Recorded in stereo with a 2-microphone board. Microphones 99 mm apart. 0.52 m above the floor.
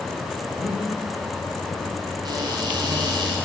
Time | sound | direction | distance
0.5 | breathing | 80° right | 4.5 m
2.2 | a cupboard door | 45° right (ahead or behind) | 3 m